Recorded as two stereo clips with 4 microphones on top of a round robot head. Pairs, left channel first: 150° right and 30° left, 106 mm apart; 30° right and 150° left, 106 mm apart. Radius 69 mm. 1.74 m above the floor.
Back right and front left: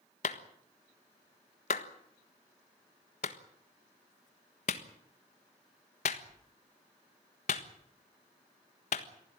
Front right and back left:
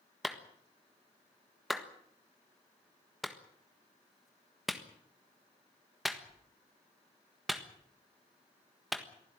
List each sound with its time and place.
0.2 s a clap: 120° right, 1.4 m